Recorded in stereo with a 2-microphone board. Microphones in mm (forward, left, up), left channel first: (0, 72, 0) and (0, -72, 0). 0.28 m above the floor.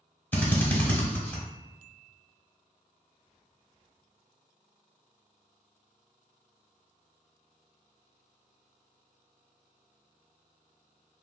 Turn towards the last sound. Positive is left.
turn(degrees=15)  # may be behind; listen again after turning